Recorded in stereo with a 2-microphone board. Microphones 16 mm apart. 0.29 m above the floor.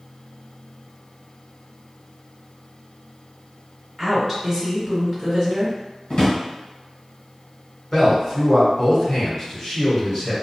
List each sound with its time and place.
4.0 s a woman speaking: 5° right (ahead or behind), 1.6 m
6.1 s a drawer: 60° left (ahead or behind), 1.0 m
7.9 s a man speaking: 30° left (ahead or behind), 1.3 m